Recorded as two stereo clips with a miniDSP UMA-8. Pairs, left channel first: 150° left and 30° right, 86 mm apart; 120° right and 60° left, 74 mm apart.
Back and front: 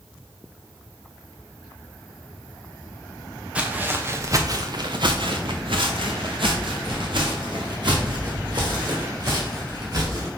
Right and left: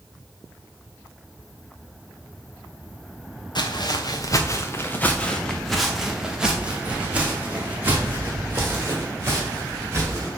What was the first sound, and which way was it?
Footsteps, 105° right.